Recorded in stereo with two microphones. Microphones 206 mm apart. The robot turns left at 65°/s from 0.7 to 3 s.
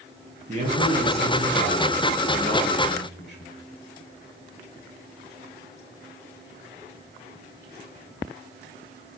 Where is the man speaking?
135° right, 3 m; by 3.5 s 75° left, 3 m.